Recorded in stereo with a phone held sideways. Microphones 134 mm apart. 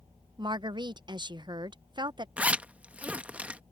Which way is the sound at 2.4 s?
10° right (ahead or behind).